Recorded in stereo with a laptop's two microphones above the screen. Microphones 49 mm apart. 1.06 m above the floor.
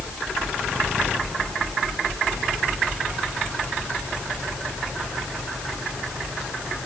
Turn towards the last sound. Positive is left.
No sound to turn to.